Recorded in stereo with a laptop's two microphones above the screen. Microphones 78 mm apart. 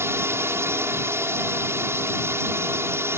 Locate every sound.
0.0 s a drone: 30° right (ahead or behind)